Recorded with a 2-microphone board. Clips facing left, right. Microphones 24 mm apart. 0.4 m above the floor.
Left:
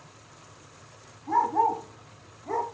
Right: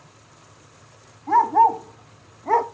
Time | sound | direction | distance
1.3 | a dog barking | 35° right (ahead or behind) | 1.3 m